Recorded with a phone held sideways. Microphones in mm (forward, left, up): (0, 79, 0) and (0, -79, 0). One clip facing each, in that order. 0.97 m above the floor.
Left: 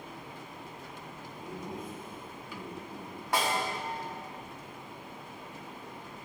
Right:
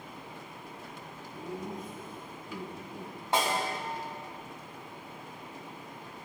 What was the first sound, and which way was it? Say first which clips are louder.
Laughter: right 3 dB; 45° right (ahead or behind).